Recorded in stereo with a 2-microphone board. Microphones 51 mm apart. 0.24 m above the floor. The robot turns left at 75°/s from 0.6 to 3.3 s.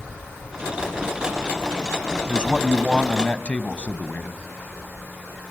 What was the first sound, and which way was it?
A man speaking, 145° right.